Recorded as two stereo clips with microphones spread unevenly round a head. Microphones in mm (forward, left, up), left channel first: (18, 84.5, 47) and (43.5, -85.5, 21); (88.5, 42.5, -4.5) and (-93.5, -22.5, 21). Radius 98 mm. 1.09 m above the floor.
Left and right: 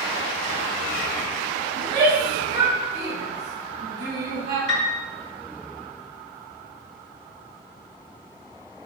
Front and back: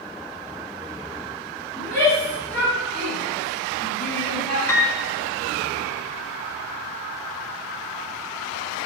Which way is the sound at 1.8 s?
55° right.